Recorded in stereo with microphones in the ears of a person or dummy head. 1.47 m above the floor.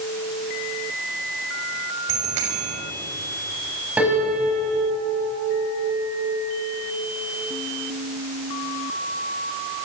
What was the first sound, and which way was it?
A bicycle bell, 70° right (ahead or behind).